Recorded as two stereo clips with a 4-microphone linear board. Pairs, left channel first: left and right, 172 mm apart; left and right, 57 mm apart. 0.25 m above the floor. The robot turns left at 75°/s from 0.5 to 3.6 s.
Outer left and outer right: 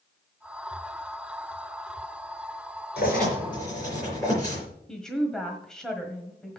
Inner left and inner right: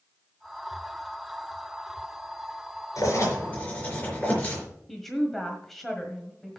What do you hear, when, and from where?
3.0 s writing: 70° left, 4.5 m; by 4.6 s 20° left, 4.5 m
4.9 s a woman speaking: 5° left (ahead or behind), 1.4 m